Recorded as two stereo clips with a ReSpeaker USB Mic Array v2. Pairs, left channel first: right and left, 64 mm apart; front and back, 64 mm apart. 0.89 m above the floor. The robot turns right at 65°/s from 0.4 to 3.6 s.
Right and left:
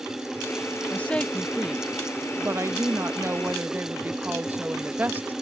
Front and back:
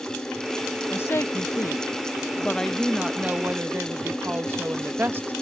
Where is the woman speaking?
35° right; by 5.3 s 140° left.